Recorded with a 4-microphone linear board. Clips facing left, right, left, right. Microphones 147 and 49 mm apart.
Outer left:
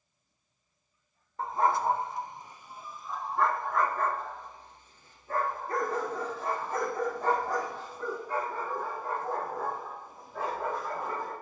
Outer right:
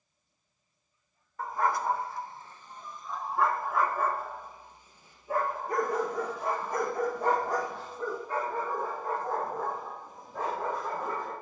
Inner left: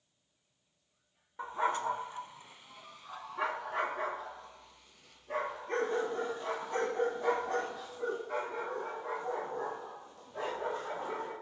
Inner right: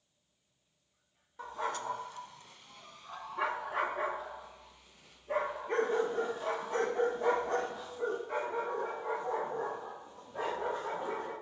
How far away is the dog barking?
About 0.7 m.